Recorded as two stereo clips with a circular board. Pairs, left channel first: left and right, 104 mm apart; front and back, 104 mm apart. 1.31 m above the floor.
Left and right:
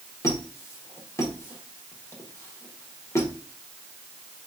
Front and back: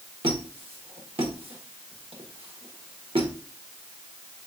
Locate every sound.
0.2 s a squeak: 150° left, 1.3 m